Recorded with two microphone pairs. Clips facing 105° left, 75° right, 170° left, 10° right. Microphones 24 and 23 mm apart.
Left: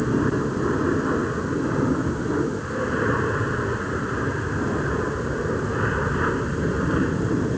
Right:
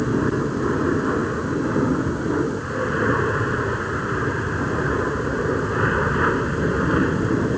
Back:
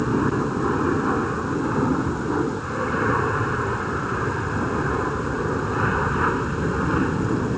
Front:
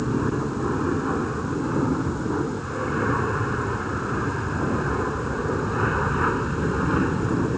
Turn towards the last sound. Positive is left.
turn(degrees=-105)